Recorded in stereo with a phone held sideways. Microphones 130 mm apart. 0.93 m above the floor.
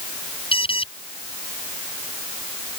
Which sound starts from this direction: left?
An alarm, at 0.5 s.